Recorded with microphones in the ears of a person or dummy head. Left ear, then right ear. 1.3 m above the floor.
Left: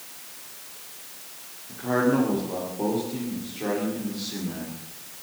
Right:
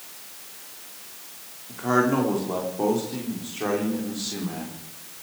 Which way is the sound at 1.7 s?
65° right (ahead or behind).